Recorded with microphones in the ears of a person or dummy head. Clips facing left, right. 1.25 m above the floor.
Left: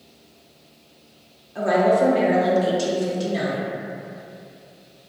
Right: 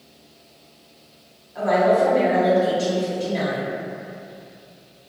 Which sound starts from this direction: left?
A woman speaking, at 1.6 s.